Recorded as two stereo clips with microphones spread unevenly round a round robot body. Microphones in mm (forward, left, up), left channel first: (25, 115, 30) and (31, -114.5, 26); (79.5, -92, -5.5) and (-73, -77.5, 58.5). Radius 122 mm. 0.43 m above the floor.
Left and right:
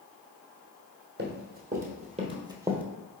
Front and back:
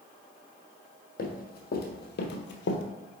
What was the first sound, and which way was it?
Running footsteps, 40° right.